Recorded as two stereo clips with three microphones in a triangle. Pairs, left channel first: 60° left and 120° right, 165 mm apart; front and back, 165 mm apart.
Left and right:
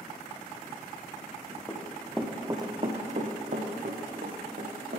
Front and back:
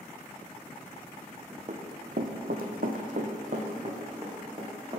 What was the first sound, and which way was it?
Running footsteps, 135° left.